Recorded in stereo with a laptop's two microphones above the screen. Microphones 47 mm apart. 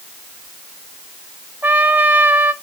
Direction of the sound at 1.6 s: 40° right (ahead or behind).